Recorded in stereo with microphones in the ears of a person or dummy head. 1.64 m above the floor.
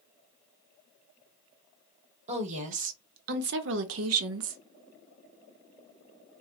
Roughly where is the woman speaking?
Right.